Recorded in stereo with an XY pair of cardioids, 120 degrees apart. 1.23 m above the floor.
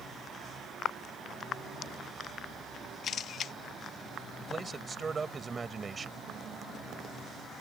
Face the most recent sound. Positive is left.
turn(degrees=-25)